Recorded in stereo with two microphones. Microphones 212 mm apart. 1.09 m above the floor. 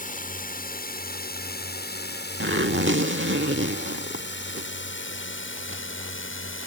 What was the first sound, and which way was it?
A drone, 40° left (ahead or behind).